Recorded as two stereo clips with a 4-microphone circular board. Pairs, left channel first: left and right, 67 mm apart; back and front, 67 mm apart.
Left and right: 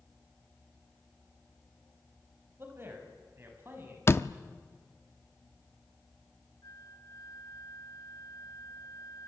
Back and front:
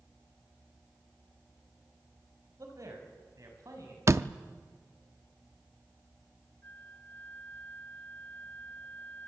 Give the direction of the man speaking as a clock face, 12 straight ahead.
1 o'clock.